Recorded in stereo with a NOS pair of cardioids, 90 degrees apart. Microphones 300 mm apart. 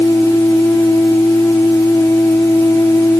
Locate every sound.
0.0 s a machine running: 10° left